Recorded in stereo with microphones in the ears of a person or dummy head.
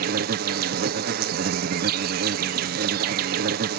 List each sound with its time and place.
0.0 s an insect: 50° right (ahead or behind)